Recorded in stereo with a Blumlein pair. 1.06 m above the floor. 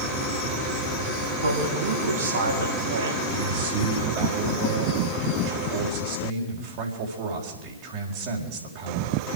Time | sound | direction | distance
1.4 | a man speaking | 70° right | 7 m
3.3 | a man speaking | 50° right | 4 m